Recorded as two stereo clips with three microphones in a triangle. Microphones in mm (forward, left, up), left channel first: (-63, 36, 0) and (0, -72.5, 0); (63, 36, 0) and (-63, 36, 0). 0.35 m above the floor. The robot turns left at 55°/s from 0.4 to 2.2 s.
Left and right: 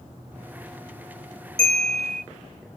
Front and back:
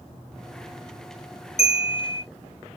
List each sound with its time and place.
1.6 s a bell: 20° right, 3.5 m; by 2.2 s 50° right, 3.5 m